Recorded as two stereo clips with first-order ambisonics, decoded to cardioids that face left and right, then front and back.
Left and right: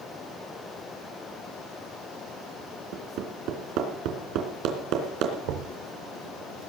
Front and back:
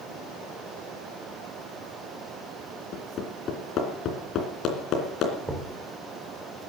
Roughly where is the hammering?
Ahead right.